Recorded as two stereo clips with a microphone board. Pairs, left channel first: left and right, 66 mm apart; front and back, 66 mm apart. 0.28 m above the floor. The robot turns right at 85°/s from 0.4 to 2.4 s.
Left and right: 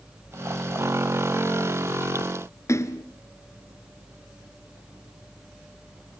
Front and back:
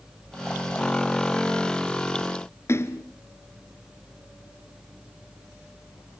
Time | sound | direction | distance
2.7 | a splash | 45° left | 1.4 m